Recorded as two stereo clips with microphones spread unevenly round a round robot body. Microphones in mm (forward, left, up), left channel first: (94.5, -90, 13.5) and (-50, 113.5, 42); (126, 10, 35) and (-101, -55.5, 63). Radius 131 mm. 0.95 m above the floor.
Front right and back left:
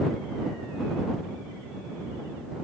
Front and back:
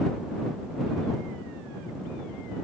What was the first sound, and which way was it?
Only background noise.